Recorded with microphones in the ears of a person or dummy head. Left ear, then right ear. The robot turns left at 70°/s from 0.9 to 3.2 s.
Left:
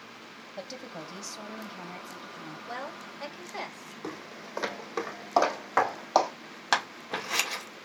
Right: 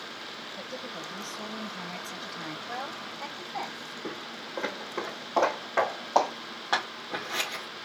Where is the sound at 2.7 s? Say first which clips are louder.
Right 2 dB; 75° left (ahead or behind), 4 m; by 3.9 s 70° left (ahead or behind), 4 m.